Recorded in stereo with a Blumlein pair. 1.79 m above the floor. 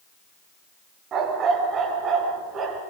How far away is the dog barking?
About 5 m.